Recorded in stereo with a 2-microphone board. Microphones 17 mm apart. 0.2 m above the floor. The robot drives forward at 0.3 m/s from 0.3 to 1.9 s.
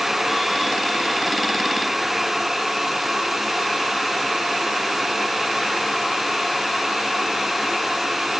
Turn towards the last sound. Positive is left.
No sound to turn to.